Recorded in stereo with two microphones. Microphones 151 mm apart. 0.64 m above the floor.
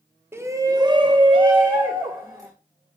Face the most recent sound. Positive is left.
turn(degrees=-25)  # may be behind; listen again after turning